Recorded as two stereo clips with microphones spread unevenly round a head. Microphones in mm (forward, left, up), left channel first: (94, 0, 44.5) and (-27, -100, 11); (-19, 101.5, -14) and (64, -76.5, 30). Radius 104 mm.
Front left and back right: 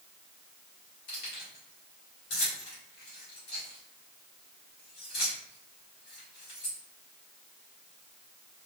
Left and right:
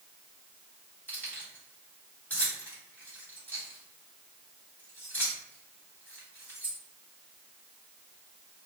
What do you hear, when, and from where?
1.1 s keys jangling: 30° left, 2 m